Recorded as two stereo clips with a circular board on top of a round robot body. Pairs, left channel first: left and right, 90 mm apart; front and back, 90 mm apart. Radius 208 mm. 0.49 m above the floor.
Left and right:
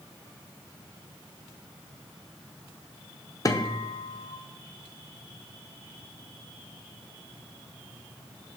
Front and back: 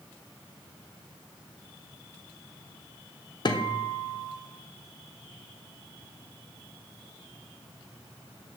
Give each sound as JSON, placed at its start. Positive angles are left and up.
{"t": 3.5, "sound": "a guitar", "azimuth_deg": 40, "distance_m": 0.7}